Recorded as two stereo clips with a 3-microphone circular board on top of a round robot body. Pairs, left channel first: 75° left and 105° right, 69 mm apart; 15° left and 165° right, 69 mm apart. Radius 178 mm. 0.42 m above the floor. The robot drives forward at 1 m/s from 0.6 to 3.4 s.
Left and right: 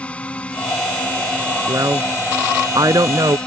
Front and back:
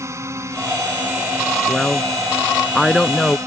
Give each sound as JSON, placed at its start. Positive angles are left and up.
{"t": 0.0, "sound": "a drone", "azimuth_deg": 150}
{"t": 1.7, "sound": "a woman speaking", "azimuth_deg": -65}